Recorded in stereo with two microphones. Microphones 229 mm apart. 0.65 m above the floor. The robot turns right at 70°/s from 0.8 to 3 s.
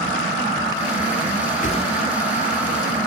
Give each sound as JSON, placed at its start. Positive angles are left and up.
{"t": 1.6, "sound": "a whoosh", "side_deg": 40, "distance_m": 0.9}